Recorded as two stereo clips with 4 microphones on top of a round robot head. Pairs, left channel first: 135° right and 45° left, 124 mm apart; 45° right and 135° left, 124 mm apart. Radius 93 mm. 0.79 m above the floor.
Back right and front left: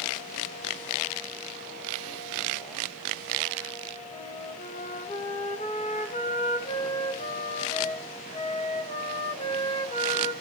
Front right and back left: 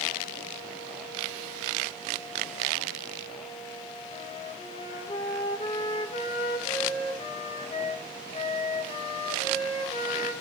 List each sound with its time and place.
4.1 s a flute: 90° right, 4 m